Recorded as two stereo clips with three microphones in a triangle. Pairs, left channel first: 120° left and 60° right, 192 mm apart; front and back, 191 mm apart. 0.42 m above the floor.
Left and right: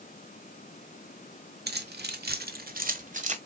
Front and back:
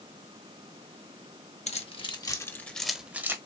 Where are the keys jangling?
50° right, 1.1 m; by 3.4 s 105° right, 1.2 m.